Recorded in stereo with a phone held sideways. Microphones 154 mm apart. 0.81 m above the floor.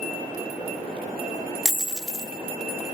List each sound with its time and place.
1.6 s a dropped coin: centre (ahead or behind), 0.7 m